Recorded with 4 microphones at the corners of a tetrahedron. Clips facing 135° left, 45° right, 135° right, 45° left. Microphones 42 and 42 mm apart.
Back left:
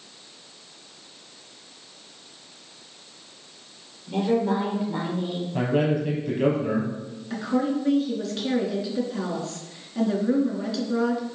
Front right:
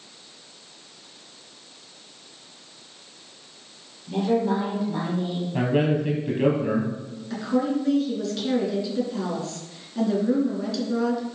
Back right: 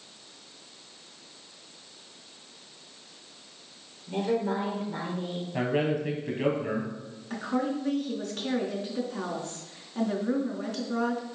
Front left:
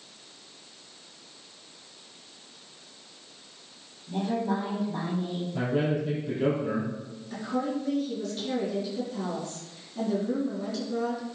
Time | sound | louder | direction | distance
4.1 | a woman speaking | even, back right 1 dB | 150° right | 5 m
5.5 | a man speaking | front right 1 dB, back right 1 dB | 115° right | 4.5 m
7.3 | a woman speaking | front right 1 dB, back right 1 dB | 150° right | 3.5 m